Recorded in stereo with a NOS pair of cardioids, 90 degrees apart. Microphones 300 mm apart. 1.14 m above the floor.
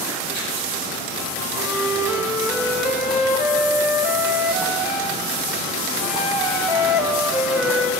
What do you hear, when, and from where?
1.5 s a flute: 5° right, 3 m